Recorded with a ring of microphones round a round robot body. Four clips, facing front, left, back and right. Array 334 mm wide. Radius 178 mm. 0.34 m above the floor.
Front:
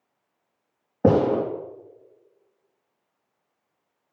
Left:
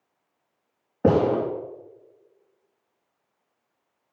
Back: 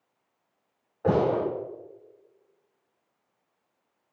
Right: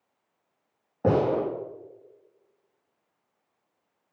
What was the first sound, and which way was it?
A gunshot, 15° left.